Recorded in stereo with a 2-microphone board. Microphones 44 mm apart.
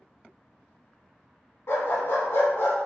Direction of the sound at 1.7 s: 70° left (ahead or behind).